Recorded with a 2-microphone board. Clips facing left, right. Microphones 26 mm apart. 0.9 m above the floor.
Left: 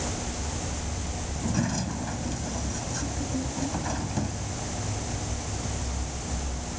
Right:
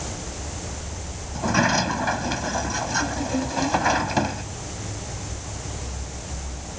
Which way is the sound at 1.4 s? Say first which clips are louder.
Right 9 dB; 55° right (ahead or behind).